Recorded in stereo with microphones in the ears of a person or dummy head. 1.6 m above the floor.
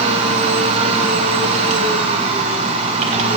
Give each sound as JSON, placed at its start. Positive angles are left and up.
{"t": 0.0, "sound": "a machine running", "side_deg": -35, "distance_m": 0.8}